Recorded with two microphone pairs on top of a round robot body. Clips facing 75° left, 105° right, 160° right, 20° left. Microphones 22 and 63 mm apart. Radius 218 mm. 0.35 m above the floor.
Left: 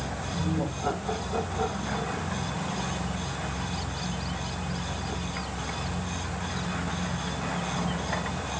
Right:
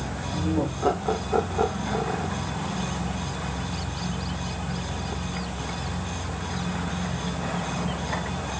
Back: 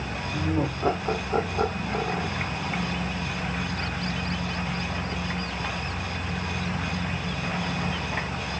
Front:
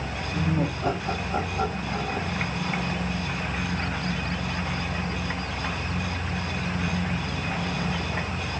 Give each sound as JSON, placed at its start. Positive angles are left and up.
{"t": 0.3, "sound": "laughter", "azimuth_deg": -100, "distance_m": 2.5}